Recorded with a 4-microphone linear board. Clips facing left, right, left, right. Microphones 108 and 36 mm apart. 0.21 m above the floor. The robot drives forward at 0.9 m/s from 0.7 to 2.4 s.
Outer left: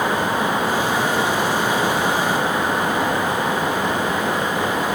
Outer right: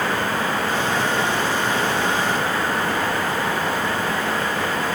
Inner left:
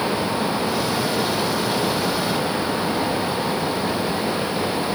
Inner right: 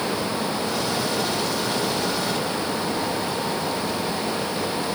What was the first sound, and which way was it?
Only background noise.